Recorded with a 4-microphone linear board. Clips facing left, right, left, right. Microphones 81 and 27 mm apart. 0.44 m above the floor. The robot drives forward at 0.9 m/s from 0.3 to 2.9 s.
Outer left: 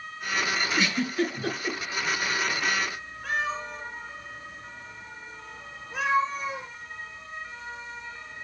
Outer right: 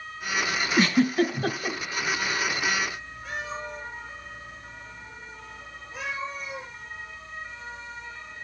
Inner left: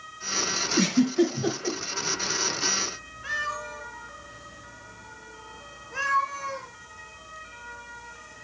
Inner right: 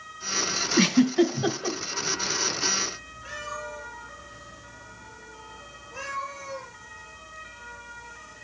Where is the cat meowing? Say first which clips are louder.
Outer left 5 dB, inner left 5 dB; 75° left (ahead or behind), 2.5 m.